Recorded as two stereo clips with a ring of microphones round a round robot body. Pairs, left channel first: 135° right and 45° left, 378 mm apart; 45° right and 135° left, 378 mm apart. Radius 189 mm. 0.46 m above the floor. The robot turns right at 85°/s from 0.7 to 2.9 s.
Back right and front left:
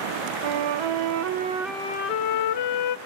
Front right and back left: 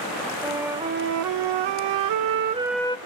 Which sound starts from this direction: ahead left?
A flute, at 0.4 s.